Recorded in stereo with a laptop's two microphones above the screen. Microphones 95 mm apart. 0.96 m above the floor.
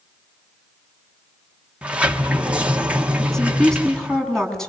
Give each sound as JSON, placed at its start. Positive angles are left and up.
{"t": 1.8, "sound": "a sliding door", "side_deg": -15, "distance_m": 1.4}
{"t": 3.2, "sound": "a woman speaking", "side_deg": 5, "distance_m": 7.5}